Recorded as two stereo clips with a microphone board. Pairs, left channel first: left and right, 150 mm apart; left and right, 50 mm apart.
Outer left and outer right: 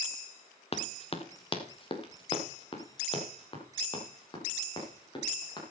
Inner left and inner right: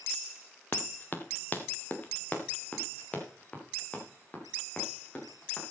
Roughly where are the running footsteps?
Left.